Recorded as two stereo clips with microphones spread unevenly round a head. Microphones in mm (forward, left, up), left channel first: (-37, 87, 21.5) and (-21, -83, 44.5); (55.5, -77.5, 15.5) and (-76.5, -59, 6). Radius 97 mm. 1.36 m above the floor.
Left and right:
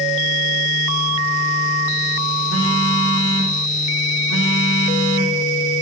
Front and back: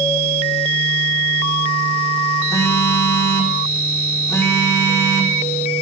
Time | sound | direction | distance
2.5 | a phone buzzing | 75° right | 3 m